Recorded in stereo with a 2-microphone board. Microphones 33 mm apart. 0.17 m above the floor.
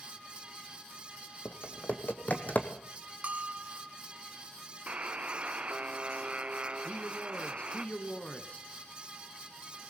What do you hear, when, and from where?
1.4 s typing on a keyboard: 50° left (ahead or behind), 1.4 m
3.2 s a bell: 45° right (ahead or behind), 0.9 m
4.9 s a buzzer: 40° right (ahead or behind), 0.8 m
6.8 s a man speaking: 40° left (ahead or behind), 2.0 m